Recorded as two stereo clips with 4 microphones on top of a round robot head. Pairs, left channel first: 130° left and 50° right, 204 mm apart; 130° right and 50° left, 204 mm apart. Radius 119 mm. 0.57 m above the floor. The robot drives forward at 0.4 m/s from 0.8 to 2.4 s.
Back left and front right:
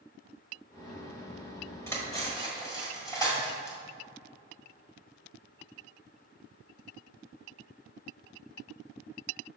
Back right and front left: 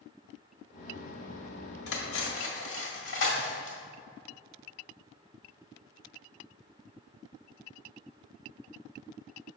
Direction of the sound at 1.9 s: 150° right.